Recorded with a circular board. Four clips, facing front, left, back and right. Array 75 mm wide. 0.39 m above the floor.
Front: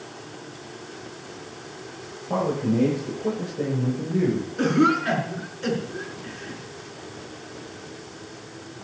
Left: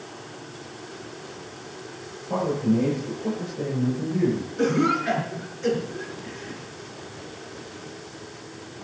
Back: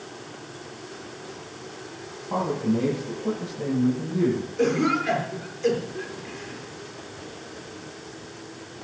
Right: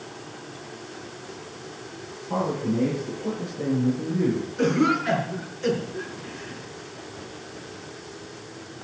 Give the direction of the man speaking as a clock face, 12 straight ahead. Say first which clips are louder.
Left 2 dB, front 1 dB; 12 o'clock.